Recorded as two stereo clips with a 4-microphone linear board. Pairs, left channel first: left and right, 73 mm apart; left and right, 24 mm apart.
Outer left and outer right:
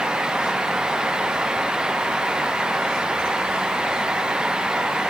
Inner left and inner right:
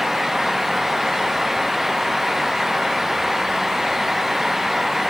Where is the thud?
I don't hear a thud.